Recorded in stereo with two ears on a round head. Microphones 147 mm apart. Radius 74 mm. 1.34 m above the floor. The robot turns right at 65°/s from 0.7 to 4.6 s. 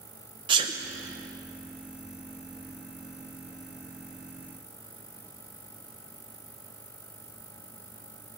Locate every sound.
0.5 s a sneeze: 30° right (ahead or behind), 0.6 m; by 0.7 s 25° right (ahead or behind), 0.6 m